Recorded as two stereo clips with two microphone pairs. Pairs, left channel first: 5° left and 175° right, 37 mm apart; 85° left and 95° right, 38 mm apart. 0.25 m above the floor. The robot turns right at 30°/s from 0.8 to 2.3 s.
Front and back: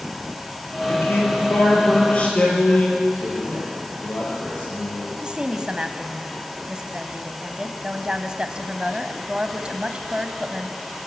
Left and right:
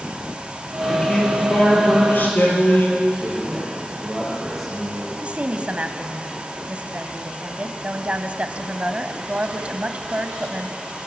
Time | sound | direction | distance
0.8 | a man speaking | 10° left | 6 m
3.2 | a man speaking | 5° right | 8 m
5.2 | a woman speaking | 130° right | 1.4 m